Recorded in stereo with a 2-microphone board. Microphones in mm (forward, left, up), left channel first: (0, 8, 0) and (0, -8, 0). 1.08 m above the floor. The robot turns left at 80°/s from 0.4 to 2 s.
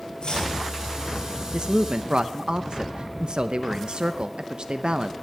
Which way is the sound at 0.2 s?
65° left (ahead or behind).